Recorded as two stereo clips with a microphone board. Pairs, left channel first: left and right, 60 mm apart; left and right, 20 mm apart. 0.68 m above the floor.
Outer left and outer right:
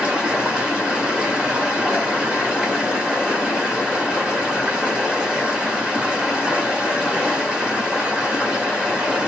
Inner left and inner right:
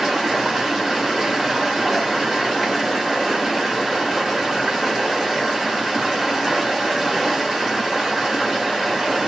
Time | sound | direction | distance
0.0 | running water | 15° right (ahead or behind) | 1.4 m